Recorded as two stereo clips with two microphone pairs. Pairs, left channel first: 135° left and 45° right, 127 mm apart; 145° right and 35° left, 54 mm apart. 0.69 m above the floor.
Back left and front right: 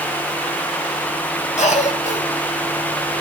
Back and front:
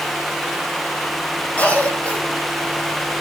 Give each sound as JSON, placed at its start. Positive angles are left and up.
{"t": 1.6, "sound": "a cough", "azimuth_deg": 155, "distance_m": 4.5}